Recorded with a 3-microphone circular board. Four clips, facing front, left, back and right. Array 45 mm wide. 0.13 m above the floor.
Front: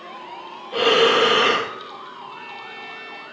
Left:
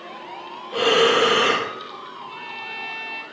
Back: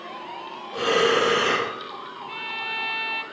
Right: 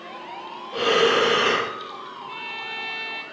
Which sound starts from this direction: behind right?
A violin, at 2.3 s.